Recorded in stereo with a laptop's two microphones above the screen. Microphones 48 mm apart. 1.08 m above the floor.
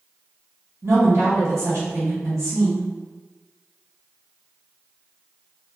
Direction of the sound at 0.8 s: 80° right.